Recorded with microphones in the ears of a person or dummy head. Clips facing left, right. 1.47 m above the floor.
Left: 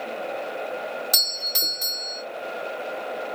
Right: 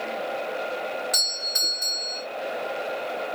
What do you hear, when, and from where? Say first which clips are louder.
1.1 s a doorbell: even; 40° left (ahead or behind), 1.0 m